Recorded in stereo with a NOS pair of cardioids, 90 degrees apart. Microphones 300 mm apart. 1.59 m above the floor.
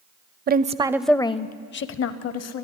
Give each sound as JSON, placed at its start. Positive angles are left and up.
{"t": 0.5, "sound": "a woman speaking", "azimuth_deg": -35, "distance_m": 0.6}